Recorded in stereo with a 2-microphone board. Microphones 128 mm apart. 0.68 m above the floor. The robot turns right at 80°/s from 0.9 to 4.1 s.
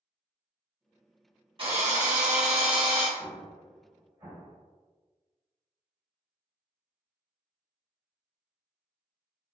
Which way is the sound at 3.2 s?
25° left (ahead or behind).